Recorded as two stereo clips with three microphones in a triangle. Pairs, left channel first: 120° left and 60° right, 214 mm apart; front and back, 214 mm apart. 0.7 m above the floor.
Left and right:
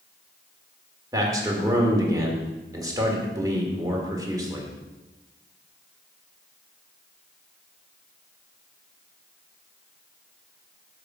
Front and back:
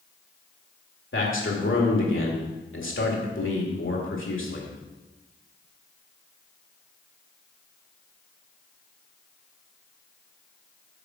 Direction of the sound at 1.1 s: 15° left.